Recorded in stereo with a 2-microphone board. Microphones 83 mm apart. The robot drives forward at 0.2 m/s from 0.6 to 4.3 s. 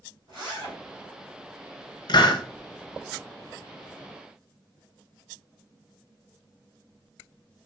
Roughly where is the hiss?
Left.